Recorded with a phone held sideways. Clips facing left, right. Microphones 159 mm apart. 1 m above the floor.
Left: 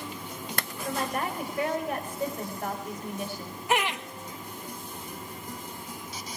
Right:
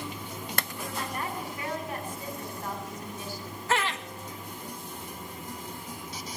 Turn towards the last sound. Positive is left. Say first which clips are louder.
# left 2 dB
turn(degrees=15)  # may be behind; listen again after turning